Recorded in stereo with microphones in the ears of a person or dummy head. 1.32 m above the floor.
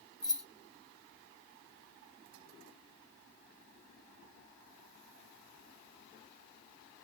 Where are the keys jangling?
5° left (ahead or behind), 0.9 m.